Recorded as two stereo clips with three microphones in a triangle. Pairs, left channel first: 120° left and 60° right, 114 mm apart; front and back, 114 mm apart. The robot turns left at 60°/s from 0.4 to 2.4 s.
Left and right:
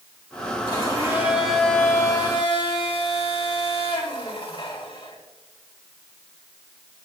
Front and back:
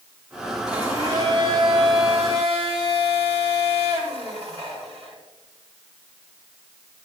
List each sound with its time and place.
0.7 s a blender: 95° right, 3 m; by 5.2 s 160° left, 3 m